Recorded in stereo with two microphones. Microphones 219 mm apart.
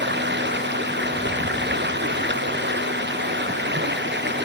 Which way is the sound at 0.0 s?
55° right (ahead or behind).